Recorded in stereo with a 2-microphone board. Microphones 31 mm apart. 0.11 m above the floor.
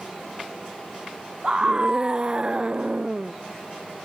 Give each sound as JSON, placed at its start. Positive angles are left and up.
{"t": 1.4, "sound": "a scream", "side_deg": -25}